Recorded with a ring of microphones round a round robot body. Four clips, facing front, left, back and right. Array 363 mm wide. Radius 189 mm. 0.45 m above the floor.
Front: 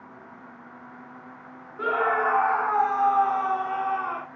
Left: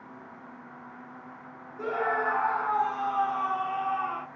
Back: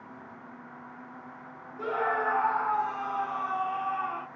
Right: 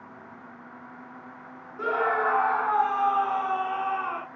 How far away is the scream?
About 1.2 m.